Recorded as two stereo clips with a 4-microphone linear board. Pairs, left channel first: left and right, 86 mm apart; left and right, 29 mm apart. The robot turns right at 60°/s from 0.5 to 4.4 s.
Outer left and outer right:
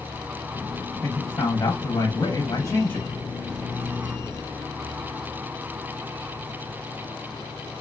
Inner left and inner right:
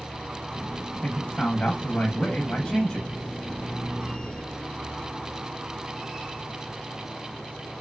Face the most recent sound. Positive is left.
turn(degrees=-120)